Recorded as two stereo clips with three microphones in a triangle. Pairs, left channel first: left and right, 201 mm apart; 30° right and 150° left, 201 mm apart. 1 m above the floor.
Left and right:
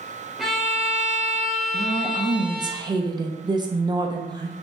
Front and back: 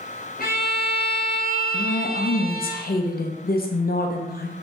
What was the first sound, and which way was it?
A violin, straight ahead.